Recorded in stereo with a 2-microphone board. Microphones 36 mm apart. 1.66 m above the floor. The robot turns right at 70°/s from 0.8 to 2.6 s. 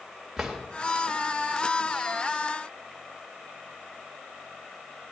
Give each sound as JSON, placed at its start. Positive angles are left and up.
{"t": 0.4, "sound": "a drawer", "side_deg": -10, "distance_m": 2.0}